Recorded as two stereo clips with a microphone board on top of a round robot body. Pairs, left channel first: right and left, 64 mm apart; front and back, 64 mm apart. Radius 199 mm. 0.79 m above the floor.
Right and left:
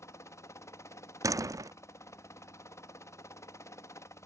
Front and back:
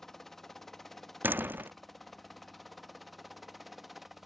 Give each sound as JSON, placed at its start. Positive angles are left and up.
{"t": 0.0, "sound": "a helicopter", "azimuth_deg": -85}
{"t": 1.2, "sound": "a door slam", "azimuth_deg": 120}